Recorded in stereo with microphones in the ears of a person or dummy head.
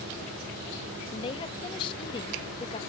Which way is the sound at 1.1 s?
30° left (ahead or behind).